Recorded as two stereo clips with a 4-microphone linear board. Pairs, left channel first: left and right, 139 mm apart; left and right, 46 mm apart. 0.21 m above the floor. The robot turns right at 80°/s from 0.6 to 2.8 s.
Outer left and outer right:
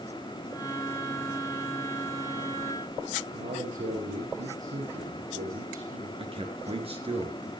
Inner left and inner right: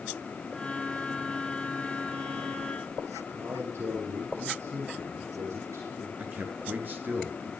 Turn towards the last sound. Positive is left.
turn(degrees=-45)  # may be behind; listen again after turning